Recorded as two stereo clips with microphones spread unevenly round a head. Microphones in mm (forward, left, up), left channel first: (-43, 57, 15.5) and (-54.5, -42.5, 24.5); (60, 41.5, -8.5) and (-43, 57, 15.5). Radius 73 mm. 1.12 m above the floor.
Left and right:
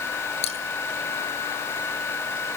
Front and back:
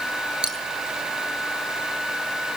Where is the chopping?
No chopping in this recording.